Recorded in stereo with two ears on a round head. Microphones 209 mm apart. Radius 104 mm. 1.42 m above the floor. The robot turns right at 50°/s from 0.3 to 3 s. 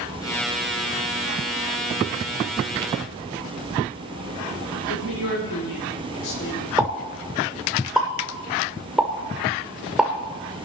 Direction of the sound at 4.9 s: 60° left (ahead or behind).